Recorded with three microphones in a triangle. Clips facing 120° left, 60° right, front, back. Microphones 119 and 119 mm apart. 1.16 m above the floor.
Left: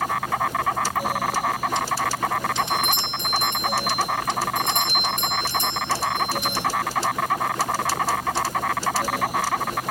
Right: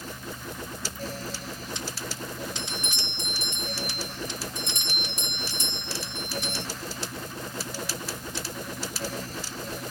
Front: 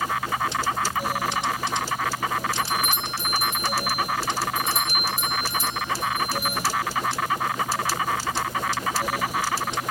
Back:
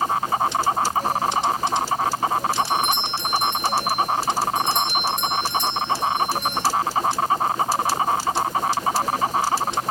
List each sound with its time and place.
0.0 s an insect: 125° left
2.6 s a doorbell: 85° left